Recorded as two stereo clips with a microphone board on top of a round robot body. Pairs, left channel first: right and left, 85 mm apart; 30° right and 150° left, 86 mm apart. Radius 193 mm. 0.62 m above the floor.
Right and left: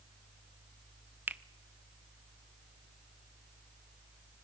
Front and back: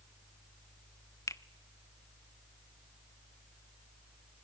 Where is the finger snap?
20° left, 1.0 m.